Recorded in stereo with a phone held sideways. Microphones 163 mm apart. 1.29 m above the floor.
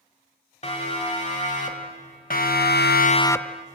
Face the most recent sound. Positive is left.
turn(degrees=-5)  # may be behind; listen again after turning